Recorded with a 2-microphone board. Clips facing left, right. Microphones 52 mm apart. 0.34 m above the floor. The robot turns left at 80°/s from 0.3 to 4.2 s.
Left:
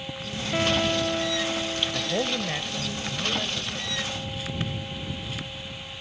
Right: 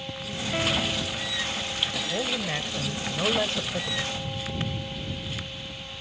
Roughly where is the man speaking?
Ahead left.